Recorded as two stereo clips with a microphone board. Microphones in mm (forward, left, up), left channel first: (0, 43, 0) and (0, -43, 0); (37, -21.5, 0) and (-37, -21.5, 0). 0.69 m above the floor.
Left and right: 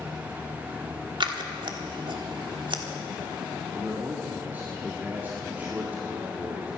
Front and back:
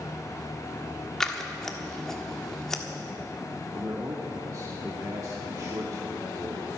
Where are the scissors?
85° right, 1.4 m.